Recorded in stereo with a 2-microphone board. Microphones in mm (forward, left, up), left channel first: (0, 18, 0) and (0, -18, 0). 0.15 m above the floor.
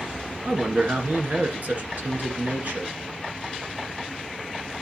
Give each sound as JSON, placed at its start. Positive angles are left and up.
{"t": 0.4, "sound": "a man speaking", "side_deg": -50, "distance_m": 1.8}